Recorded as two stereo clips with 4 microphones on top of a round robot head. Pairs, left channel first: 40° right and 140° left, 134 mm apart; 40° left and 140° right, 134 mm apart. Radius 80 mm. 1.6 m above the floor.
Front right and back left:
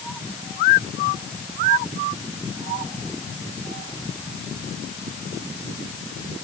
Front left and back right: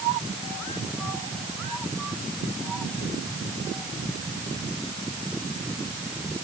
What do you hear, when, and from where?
Only background noise.